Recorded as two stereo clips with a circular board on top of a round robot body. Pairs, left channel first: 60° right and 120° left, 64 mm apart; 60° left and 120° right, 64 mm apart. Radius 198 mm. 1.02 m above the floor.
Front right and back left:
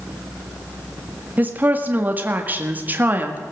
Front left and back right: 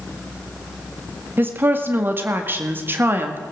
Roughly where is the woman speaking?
Behind.